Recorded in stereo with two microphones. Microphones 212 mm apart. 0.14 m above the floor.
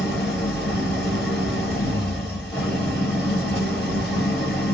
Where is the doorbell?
I don't hear a doorbell.